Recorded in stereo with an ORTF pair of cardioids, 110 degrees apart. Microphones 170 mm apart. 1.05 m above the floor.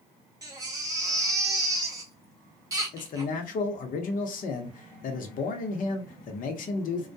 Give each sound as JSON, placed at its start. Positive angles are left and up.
{"t": 0.4, "sound": "a baby crying", "azimuth_deg": -20, "distance_m": 0.8}
{"t": 2.9, "sound": "a man speaking", "azimuth_deg": 55, "distance_m": 0.8}